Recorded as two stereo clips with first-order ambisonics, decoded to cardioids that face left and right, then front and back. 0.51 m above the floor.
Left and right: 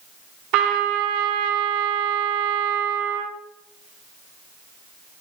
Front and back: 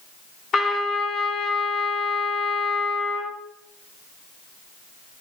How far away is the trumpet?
About 3 m.